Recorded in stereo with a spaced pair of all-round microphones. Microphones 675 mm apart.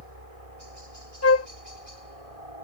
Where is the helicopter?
55° right (ahead or behind).